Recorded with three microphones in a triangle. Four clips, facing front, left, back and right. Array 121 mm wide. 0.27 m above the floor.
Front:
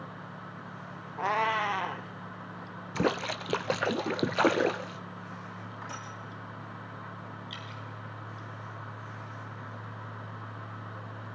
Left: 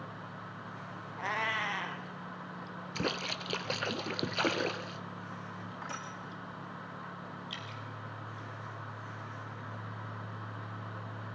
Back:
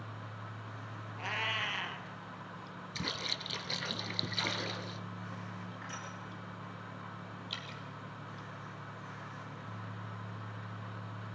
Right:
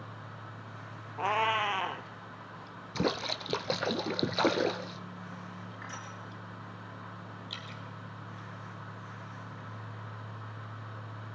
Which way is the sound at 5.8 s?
60° left.